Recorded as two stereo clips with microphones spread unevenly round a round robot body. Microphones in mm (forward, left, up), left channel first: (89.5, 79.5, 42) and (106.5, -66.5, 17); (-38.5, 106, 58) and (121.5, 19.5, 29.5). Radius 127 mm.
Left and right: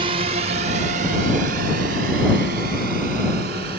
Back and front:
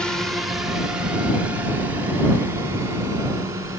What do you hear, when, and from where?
0.0 s a drone: 115° right; by 3.8 s 105° right